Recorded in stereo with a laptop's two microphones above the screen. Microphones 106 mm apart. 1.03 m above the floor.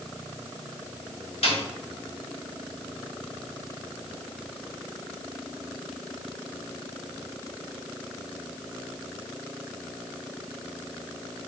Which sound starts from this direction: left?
A snare drum, at 1.4 s.